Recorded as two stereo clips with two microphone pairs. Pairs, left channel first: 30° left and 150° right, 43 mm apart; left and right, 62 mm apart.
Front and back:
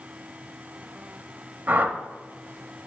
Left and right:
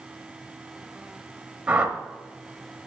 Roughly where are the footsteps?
No footsteps in this recording.